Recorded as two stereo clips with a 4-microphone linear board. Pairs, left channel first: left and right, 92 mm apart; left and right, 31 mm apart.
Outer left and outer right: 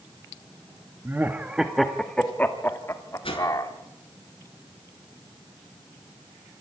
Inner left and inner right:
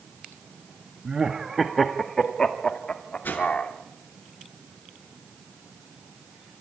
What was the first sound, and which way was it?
Laughter, 25° right (ahead or behind).